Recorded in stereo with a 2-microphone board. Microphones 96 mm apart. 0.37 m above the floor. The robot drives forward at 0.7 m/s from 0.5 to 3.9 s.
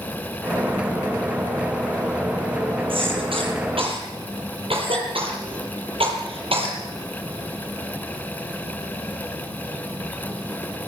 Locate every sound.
2.9 s a cough: 65° right (ahead or behind), 8.5 m; by 6.8 s 70° right (ahead or behind), 8 m